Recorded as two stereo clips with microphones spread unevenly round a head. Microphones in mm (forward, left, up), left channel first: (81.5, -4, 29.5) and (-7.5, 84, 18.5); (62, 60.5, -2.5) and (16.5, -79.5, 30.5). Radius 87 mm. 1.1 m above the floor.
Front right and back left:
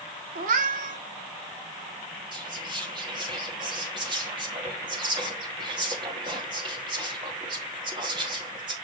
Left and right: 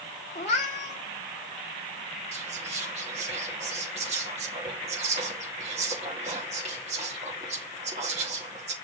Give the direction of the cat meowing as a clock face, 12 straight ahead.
8 o'clock.